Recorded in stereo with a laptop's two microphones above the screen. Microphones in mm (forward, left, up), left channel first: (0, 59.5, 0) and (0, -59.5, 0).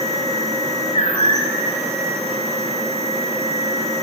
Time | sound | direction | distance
0.0 | a machine running | 75° right (ahead or behind) | 4 m